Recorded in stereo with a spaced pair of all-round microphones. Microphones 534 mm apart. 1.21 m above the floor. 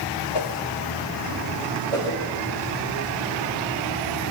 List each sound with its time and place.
0.3 s a whoosh: 50° left (ahead or behind), 1.1 m
1.9 s a whoosh: 85° right, 4.5 m